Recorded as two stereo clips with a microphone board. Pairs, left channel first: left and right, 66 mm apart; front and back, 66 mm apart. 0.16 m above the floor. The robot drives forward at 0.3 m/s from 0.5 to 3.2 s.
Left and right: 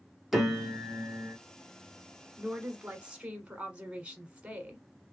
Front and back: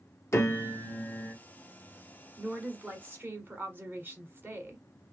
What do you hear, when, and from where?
0.3 s a piano: 5° right, 1.1 m; by 1.4 s 10° right, 1.0 m
2.4 s a woman speaking: 140° right, 1.1 m; by 4.8 s 150° right, 1.2 m